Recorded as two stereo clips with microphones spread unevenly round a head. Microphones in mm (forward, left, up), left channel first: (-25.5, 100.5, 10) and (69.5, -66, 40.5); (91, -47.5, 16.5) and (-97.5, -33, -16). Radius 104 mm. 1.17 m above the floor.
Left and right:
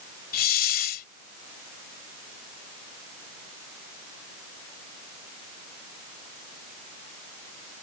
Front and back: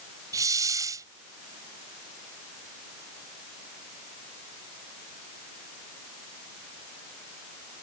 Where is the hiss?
100° left.